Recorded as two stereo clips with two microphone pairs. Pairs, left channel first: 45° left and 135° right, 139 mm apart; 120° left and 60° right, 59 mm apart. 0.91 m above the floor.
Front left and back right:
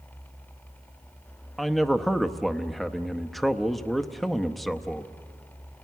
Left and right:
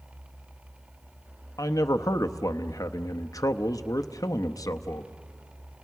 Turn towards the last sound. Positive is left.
turn(degrees=135)